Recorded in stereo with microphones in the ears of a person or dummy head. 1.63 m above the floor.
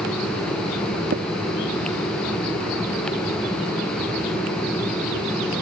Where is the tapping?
55° right (ahead or behind).